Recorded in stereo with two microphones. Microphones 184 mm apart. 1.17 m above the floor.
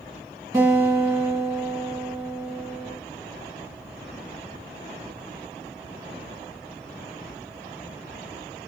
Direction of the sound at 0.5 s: 20° right (ahead or behind).